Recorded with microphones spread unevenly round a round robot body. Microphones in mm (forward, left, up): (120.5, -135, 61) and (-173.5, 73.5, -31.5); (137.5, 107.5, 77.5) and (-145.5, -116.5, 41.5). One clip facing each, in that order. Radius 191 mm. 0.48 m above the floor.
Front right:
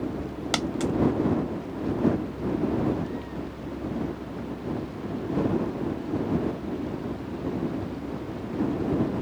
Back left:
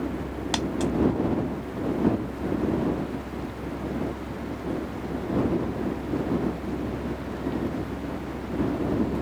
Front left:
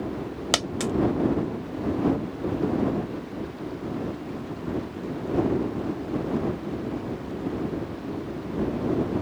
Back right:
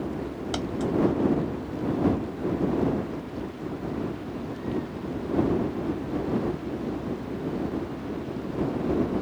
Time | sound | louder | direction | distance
0.5 | a dropped coin | back left 1 dB, even | 50° left | ?